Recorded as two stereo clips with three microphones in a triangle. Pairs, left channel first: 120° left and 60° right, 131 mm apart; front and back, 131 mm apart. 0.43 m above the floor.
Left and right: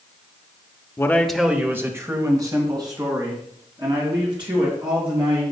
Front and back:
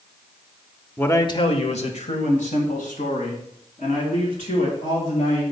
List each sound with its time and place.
1.0 s a man speaking: 70° left, 0.8 m; by 5.4 s 5° right, 5.5 m